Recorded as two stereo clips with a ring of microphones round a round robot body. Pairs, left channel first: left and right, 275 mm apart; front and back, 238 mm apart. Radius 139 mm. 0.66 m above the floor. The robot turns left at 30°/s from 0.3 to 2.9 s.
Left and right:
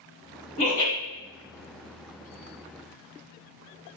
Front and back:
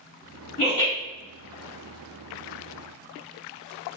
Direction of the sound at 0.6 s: 30° left.